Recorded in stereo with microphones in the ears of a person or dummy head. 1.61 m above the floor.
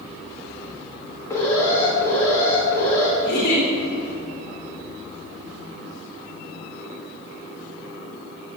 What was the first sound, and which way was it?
An alarm, 15° left (ahead or behind).